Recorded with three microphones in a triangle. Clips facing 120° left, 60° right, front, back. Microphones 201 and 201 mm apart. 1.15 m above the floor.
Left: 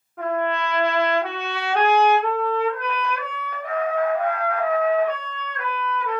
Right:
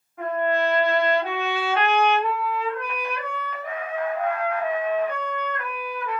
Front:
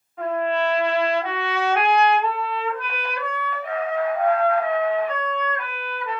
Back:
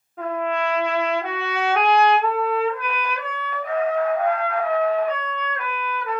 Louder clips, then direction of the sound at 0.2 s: Right 1 dB, front 2 dB; 135° left.